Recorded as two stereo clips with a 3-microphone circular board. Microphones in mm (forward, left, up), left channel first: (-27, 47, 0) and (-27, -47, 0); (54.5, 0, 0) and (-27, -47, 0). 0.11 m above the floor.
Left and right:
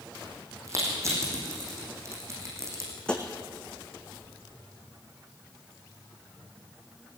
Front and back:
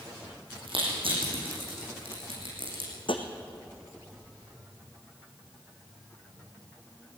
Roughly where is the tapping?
Ahead.